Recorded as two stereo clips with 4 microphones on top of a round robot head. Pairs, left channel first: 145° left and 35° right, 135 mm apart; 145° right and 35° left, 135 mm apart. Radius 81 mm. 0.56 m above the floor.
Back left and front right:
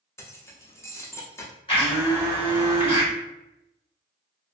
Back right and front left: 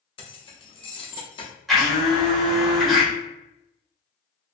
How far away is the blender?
About 1.4 m.